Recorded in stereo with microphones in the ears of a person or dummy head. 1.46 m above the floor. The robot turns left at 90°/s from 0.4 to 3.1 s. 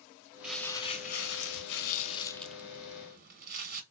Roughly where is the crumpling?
Behind.